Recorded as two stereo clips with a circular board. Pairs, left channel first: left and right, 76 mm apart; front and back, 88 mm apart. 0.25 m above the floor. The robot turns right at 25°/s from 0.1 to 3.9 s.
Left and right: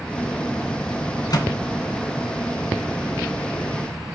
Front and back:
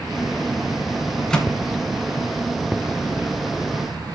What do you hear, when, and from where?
1.3 s a microwave: 80° left, 2 m; by 1.5 s 85° left, 2 m